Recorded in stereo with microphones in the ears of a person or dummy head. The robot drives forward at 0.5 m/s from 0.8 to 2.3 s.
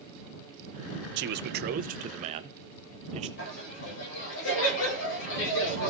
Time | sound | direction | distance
1.2 | a man speaking | 60° right (ahead or behind) | 0.8 m
3.4 | laughter | 65° left (ahead or behind) | 4 m